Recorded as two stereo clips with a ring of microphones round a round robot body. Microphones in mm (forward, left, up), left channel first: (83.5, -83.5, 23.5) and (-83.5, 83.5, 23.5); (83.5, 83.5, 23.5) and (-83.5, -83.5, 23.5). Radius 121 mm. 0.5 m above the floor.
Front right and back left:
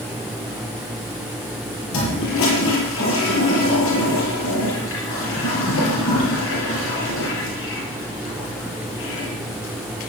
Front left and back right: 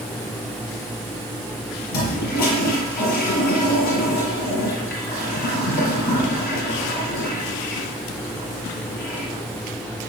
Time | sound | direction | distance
1.9 | a toilet flushing | 10° right | 7 m